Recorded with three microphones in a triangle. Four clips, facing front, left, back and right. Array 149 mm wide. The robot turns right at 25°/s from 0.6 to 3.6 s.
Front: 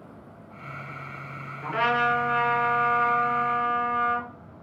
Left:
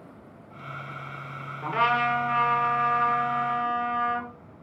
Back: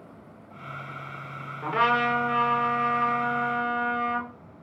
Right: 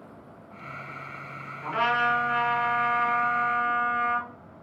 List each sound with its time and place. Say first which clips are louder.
1.6 s a trumpet: left 1 dB, back 1 dB; 145° left, 3.5 m; by 4.3 s 165° right, 3.5 m